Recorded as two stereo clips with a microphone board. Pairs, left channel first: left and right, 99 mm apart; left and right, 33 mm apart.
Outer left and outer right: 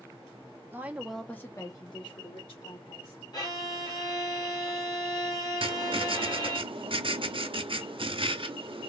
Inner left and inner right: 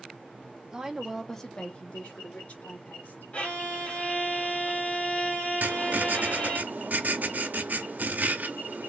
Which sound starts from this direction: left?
A violin, at 3.3 s.